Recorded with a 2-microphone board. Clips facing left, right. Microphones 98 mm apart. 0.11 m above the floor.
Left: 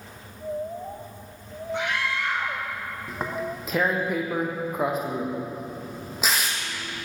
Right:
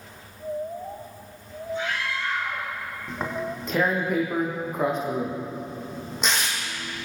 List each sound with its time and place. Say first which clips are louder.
1.7 s a scream: left 2 dB; 70° left (ahead or behind), 4 m
3.1 s tearing paper: right 1 dB; 5° left (ahead or behind), 5 m